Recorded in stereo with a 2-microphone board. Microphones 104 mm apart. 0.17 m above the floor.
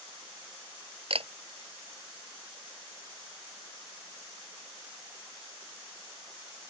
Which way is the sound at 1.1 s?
70° right (ahead or behind).